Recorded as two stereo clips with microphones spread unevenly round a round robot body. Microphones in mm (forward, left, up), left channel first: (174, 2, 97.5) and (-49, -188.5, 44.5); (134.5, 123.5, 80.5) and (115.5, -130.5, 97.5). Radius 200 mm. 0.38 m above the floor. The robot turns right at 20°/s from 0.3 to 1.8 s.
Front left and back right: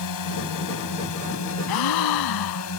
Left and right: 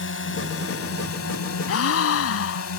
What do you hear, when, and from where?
0.0 s a drone: 55° left; by 2.8 s 85° left
1.7 s a gasp: 45° left; by 2.7 s 50° left